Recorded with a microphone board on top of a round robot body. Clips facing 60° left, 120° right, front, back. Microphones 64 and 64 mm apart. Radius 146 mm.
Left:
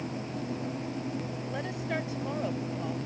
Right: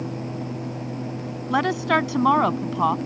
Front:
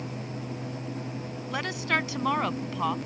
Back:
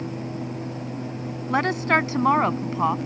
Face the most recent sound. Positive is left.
turn(degrees=-110)